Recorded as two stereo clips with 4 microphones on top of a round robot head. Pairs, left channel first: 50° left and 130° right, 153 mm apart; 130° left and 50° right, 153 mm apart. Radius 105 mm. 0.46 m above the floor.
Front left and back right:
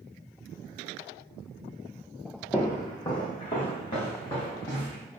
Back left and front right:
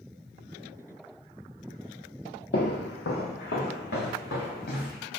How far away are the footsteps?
About 0.6 m.